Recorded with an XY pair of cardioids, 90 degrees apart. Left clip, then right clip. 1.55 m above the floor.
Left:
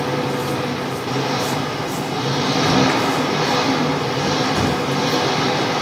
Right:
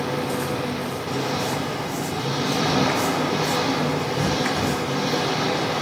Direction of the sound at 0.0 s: 45° left.